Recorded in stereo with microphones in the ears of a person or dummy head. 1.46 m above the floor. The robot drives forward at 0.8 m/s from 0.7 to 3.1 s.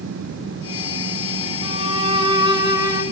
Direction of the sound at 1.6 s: 30° right (ahead or behind).